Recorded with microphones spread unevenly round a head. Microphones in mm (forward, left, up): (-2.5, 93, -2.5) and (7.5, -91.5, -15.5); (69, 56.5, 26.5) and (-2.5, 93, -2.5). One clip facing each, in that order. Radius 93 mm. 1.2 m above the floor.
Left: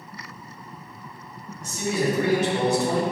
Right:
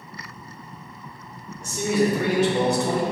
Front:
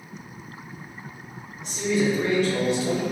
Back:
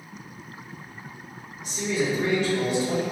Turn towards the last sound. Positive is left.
turn(degrees=-50)